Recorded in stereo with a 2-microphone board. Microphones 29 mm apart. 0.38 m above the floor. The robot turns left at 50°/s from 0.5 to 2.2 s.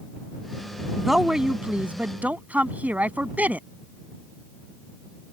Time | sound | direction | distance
1.0 | a woman speaking | 5° right | ?